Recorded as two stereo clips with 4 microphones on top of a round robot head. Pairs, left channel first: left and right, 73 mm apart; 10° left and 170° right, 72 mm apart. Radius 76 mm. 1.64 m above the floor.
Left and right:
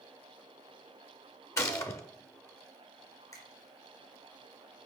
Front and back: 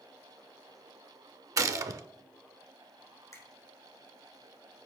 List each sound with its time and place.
1.6 s a gunshot: 145° left, 0.5 m
3.3 s a finger snap: 50° left, 3 m